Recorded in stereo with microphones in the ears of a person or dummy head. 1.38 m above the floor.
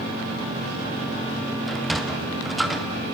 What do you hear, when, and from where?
1.7 s a sliding door: 5° right (ahead or behind), 0.6 m